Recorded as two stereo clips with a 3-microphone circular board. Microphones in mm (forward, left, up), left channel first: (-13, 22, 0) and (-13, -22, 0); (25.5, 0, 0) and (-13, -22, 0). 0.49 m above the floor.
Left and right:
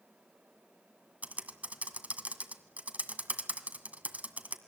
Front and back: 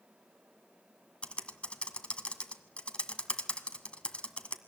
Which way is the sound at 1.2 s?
35° right.